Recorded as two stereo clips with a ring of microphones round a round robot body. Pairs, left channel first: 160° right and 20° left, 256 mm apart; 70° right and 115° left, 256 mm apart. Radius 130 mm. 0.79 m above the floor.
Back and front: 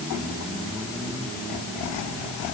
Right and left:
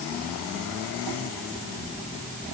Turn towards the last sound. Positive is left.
No sound to turn to.